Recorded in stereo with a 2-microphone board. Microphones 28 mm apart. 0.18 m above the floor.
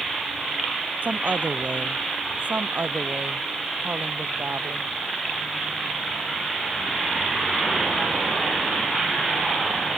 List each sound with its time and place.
1.0 s a woman speaking: 60° right (ahead or behind); by 4.9 s 75° right (ahead or behind)